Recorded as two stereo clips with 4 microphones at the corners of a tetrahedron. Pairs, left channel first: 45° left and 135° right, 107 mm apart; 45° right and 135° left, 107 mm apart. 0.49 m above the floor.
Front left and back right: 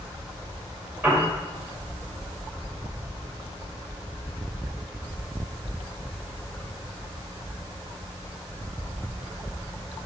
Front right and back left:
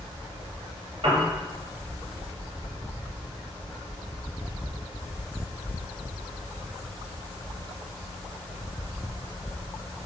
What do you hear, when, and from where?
1.0 s a piano: 160° left, 2.5 m